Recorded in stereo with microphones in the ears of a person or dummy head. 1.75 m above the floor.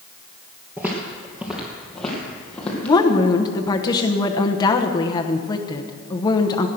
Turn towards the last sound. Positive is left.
turn(degrees=15)  # may be behind; listen again after turning